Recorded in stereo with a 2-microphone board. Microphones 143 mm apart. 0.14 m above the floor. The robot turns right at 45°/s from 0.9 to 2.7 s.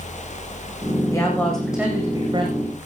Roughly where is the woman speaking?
Behind left.